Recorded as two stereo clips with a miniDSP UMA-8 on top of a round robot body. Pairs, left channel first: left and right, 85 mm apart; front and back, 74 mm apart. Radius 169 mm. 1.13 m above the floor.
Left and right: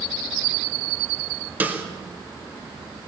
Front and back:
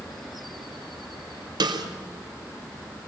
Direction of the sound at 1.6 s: 160° right.